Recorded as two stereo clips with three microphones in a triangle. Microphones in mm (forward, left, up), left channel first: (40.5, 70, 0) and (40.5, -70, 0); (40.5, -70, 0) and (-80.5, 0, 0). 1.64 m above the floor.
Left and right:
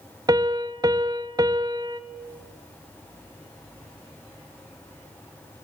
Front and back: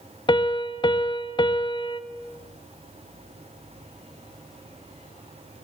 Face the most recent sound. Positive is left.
turn(degrees=-50)